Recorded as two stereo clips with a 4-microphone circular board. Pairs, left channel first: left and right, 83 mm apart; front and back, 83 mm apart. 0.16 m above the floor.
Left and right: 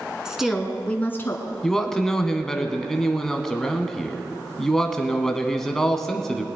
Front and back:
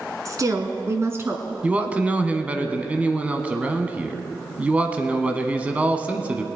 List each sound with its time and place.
0.2 s a woman speaking: 165° right, 1.6 m; by 1.4 s 125° left, 1.6 m
1.6 s a man speaking: 165° left, 1.0 m